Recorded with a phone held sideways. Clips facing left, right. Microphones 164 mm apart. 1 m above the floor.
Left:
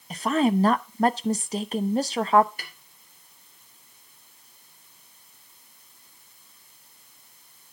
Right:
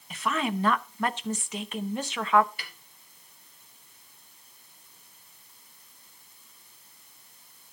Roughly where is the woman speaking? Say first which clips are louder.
Left 8 dB; left.